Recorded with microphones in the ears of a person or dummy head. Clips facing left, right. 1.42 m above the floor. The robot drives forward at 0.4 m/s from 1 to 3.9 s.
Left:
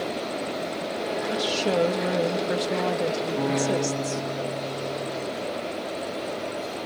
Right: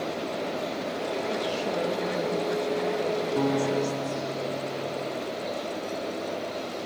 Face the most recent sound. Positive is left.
turn(degrees=-50)  # may be behind; listen again after turning